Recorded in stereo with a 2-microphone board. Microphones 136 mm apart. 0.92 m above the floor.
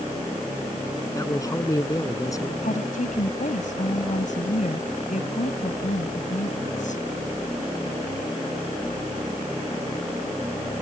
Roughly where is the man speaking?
Left.